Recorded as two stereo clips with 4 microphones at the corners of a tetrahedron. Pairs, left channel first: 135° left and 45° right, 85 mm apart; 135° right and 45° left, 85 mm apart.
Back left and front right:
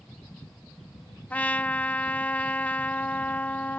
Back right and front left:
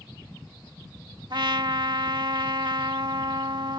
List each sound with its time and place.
1.3 s a trumpet: 65° left